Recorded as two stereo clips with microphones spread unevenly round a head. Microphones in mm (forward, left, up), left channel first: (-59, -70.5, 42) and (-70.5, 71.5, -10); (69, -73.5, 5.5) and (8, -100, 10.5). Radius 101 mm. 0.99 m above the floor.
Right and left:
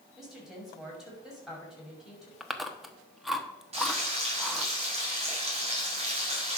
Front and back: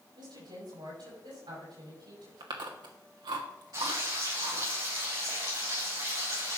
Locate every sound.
0.2 s a woman speaking: straight behind, 6 m
2.4 s chewing: 175° right, 1.3 m
3.7 s frying: 140° left, 4.5 m